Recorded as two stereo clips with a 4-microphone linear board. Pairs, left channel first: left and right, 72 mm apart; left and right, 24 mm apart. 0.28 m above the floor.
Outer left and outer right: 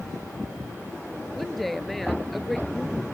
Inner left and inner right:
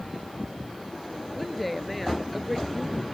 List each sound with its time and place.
1.4 s a woman speaking: centre (ahead or behind)